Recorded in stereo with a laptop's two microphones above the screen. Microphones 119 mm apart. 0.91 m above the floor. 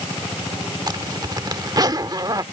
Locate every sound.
0.9 s a zipper: 35° right (ahead or behind)